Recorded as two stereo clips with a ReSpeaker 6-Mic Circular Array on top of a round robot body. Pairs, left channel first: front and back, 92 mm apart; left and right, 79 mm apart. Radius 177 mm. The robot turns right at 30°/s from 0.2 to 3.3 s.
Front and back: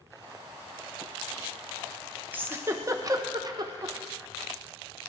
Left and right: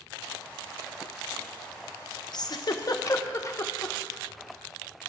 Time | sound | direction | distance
2.3 | a giggle | 110° left | 0.8 m